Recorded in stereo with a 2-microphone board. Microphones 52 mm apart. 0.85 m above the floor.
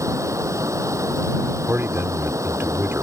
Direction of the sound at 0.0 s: 75° right (ahead or behind).